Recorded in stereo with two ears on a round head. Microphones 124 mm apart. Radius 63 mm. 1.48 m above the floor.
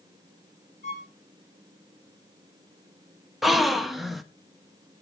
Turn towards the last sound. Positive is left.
turn(degrees=0)  # may be behind; listen again after turning